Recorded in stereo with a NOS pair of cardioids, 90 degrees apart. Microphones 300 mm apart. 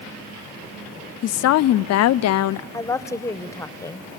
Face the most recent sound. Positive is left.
turn(degrees=10)